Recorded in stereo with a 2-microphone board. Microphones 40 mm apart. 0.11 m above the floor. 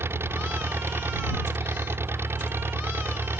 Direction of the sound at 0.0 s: 80° right.